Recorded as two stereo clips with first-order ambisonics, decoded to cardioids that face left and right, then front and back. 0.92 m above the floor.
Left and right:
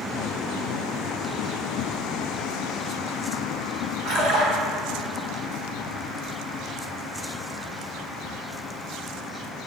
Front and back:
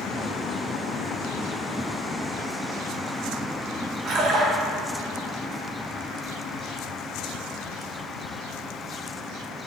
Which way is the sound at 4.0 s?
135° right.